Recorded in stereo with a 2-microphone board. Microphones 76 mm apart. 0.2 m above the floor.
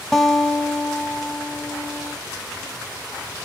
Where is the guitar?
5° left (ahead or behind), 1.0 m.